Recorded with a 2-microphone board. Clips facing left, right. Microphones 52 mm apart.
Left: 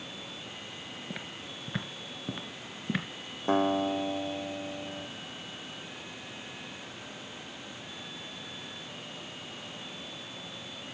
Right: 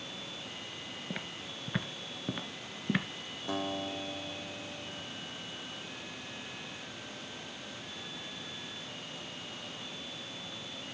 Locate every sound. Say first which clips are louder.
1.1 s footsteps: right 1 dB; 5° right (ahead or behind), 1.4 m
3.5 s a guitar: left 10 dB; 35° left (ahead or behind), 0.6 m